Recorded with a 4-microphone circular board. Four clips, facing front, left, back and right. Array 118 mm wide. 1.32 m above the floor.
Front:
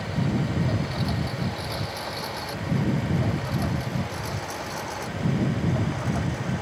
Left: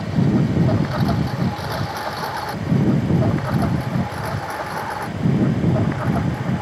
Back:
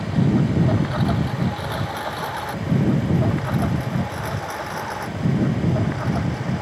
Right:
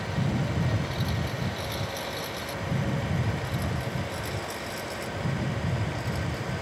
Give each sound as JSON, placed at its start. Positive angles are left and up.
{"t": 0.0, "sound": "a lawn mower", "azimuth_deg": 125}